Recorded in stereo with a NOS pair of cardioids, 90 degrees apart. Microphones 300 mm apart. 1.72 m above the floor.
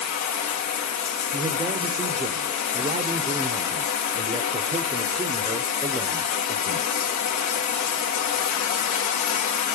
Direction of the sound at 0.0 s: 70° left.